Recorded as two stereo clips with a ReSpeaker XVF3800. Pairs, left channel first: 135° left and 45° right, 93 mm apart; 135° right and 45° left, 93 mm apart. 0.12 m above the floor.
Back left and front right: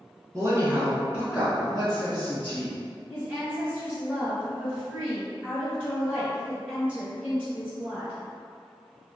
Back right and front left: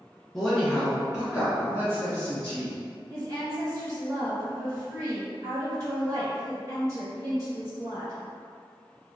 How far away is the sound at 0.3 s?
About 1.8 m.